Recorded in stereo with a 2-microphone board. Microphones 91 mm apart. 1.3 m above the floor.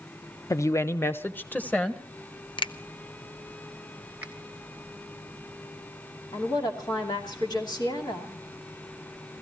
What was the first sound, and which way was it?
A woman speaking, 35° left (ahead or behind).